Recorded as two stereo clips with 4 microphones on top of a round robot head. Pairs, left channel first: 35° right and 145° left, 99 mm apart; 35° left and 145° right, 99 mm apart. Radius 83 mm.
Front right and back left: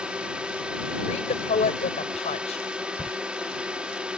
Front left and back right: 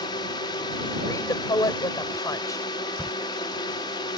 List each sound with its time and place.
0.0 s a drone: 65° left
1.1 s a woman speaking: 20° right
3.0 s a crack: 55° right